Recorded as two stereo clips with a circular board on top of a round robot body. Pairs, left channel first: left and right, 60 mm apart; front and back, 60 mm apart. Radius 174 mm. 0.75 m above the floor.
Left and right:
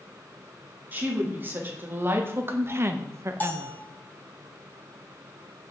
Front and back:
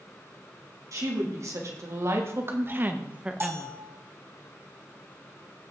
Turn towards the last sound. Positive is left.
turn(degrees=145)